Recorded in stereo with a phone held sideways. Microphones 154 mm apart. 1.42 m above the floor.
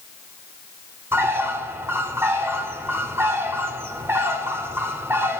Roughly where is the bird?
Centre.